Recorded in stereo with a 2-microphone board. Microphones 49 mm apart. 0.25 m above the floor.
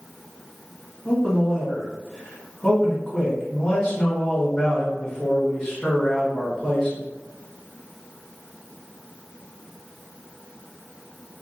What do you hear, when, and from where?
1.1 s a man speaking: centre (ahead or behind), 1.3 m